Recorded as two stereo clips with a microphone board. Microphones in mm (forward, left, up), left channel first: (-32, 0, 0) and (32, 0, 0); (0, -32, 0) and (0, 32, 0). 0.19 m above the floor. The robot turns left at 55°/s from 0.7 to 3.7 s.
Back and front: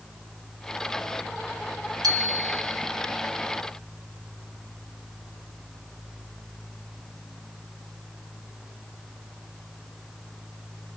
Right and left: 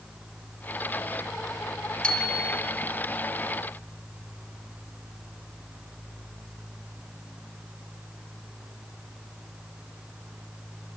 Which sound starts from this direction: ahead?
A bicycle bell, at 2.0 s.